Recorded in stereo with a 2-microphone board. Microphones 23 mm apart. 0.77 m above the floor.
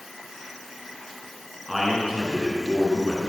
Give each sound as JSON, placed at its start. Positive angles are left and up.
{"t": 1.7, "sound": "a man speaking", "side_deg": -10, "distance_m": 9.0}